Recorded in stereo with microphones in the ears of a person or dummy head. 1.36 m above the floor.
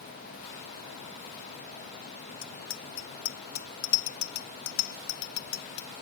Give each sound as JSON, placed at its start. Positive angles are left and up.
{"t": 2.4, "sound": "a bicycle bell", "side_deg": 80}